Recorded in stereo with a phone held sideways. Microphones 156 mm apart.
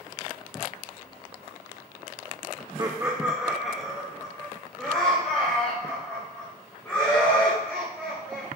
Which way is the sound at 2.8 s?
30° right (ahead or behind).